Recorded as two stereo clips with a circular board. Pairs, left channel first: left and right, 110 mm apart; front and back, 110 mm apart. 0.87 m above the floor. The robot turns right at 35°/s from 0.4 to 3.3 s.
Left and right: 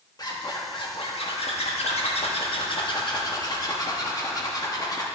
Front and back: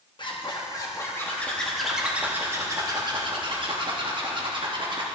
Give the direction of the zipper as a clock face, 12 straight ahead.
11 o'clock.